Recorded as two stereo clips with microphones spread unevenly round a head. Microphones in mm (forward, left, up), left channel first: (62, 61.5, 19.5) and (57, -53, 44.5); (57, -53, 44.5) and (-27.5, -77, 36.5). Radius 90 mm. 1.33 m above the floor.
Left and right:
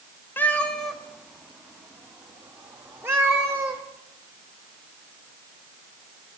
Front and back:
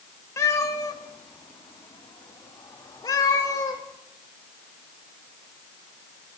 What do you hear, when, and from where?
0.4 s a cat meowing: 5° left, 0.8 m; by 3.8 s 30° right, 2.5 m